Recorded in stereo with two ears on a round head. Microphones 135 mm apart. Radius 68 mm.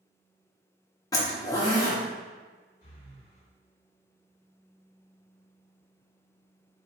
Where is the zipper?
25° left (ahead or behind), 1.0 m.